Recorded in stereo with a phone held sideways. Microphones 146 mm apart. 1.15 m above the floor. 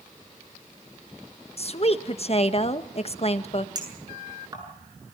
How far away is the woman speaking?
About 1.2 m.